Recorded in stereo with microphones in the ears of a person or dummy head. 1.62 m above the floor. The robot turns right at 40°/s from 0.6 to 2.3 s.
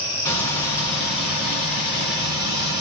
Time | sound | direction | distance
0.2 | frying | 25° left (ahead or behind) | 1.6 m